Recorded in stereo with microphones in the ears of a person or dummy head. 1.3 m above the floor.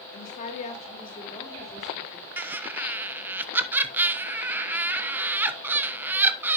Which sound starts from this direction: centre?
Laughter, at 2.4 s.